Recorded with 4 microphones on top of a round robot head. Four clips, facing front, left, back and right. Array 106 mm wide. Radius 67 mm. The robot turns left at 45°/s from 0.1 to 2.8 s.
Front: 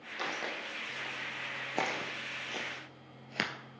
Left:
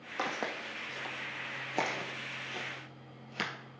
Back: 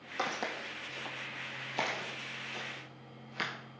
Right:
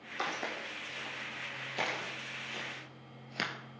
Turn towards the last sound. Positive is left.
turn(degrees=-15)